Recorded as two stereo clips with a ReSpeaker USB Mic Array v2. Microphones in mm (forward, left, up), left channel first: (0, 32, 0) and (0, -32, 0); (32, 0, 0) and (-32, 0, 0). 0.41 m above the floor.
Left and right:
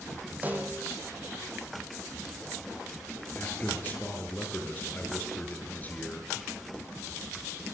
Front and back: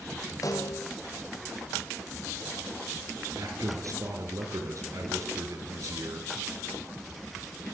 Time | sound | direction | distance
0.4 | a snare drum | 25° right | 4.5 m
3.4 | a man speaking | 150° left | 6 m